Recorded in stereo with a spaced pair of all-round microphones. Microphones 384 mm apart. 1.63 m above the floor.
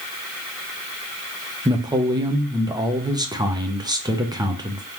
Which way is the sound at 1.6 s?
10° right (ahead or behind).